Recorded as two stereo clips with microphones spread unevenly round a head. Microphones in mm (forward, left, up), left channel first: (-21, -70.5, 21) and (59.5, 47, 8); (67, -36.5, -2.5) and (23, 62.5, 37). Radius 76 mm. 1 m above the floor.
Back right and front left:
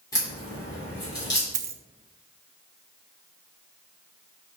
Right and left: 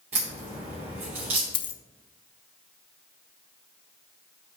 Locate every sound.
0.1 s a crack: 165° left, 3 m
1.5 s a dropped coin: 15° right, 0.5 m